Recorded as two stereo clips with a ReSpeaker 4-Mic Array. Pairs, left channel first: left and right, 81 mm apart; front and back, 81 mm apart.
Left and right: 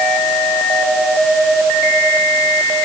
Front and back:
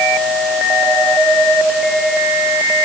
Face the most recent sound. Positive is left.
No sound to turn to.